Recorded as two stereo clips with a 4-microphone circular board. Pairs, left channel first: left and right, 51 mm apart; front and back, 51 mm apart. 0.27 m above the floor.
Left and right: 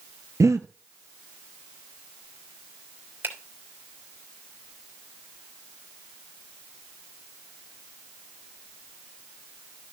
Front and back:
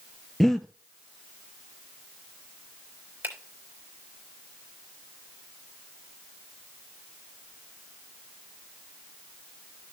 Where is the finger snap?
135° right, 3 m.